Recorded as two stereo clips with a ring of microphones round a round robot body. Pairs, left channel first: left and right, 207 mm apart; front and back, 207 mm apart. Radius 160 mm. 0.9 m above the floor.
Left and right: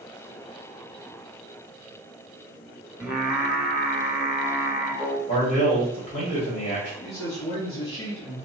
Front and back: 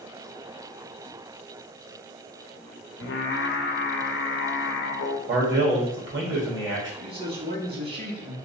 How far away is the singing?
About 0.6 m.